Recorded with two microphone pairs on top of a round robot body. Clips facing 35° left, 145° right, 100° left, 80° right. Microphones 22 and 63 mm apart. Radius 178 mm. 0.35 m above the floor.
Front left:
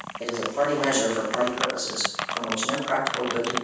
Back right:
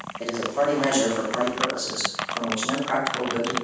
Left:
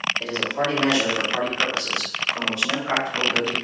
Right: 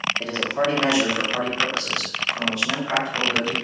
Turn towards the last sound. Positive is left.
turn(degrees=140)